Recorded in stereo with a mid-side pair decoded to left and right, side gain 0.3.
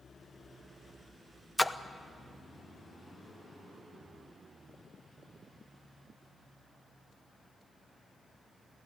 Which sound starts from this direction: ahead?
A splash, at 1.6 s.